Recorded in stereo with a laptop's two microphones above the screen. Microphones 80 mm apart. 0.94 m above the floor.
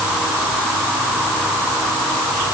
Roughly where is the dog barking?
I don't hear a dog barking.